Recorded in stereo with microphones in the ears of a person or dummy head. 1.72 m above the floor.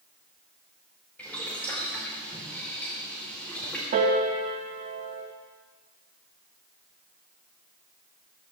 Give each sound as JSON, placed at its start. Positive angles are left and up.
{"t": 1.2, "sound": "boiling", "side_deg": 10, "distance_m": 5.0}
{"t": 3.9, "sound": "a piano", "side_deg": -40, "distance_m": 2.5}